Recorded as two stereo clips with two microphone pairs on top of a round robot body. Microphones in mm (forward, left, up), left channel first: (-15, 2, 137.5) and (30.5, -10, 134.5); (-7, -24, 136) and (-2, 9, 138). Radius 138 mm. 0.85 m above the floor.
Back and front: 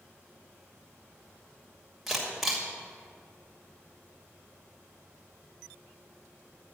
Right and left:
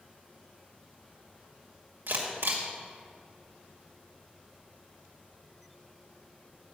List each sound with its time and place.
2.1 s a camera shutter: 70° left, 2 m